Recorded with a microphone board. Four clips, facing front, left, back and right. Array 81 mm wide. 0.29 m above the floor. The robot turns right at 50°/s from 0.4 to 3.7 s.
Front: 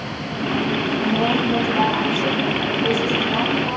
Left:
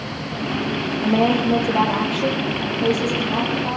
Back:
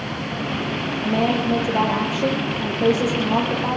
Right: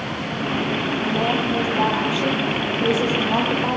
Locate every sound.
1.0 s a woman speaking: 105° left, 8.5 m; by 3.8 s 120° right, 8.5 m